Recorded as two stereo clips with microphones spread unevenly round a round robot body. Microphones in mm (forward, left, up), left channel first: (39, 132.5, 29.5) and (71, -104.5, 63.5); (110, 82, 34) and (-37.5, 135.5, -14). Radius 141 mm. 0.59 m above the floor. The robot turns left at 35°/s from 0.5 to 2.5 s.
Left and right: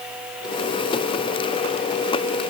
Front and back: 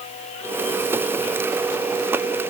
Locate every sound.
Only background noise.